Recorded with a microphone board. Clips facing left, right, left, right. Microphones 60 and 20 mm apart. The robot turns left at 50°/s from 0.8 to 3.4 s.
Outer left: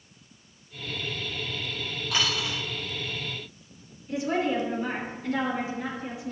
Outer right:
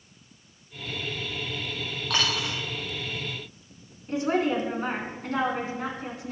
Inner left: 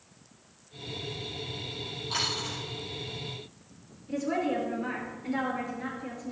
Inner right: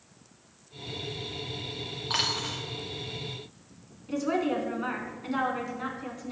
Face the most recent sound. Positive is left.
turn(degrees=-50)  # may be behind; listen again after turning